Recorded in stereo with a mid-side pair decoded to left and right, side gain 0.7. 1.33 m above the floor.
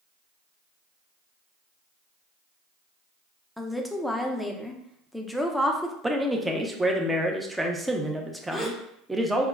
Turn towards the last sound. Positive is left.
turn(degrees=15)